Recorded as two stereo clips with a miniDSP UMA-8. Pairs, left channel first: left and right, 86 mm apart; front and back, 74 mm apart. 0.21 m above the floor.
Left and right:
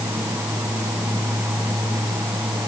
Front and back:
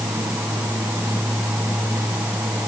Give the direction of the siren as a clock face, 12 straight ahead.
No siren in this recording.